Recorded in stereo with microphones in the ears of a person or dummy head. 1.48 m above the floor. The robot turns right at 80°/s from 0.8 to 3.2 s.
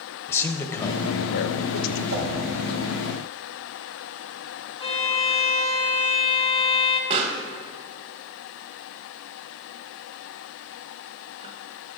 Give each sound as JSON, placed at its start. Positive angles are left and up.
{"t": 0.3, "sound": "a man speaking", "azimuth_deg": 15, "distance_m": 0.7}
{"t": 2.1, "sound": "a whoosh", "side_deg": -65, "distance_m": 2.5}
{"t": 4.8, "sound": "a violin", "side_deg": 25, "distance_m": 0.9}
{"t": 7.1, "sound": "a pop", "side_deg": -30, "distance_m": 1.0}